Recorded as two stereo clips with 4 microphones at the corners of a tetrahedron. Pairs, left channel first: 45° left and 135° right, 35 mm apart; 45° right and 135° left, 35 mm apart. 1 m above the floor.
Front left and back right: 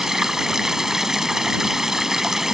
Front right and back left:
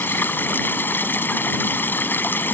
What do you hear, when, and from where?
0.0 s running water: 55° right